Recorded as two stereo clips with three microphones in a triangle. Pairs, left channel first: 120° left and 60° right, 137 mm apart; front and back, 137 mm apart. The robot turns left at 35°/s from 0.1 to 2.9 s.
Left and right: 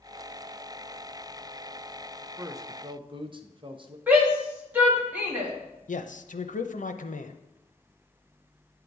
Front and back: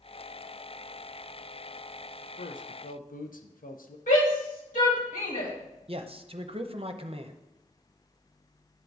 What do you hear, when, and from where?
2.4 s a man speaking: 15° left, 0.7 m; by 4.0 s 5° right, 0.7 m
4.1 s a shout: 15° left, 3 m
5.9 s a man speaking: 135° left, 0.6 m